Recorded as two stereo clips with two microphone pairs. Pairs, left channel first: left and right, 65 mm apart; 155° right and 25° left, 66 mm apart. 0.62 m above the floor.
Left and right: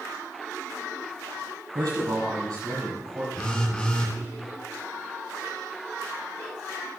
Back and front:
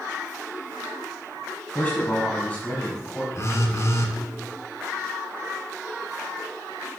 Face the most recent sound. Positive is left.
turn(degrees=160)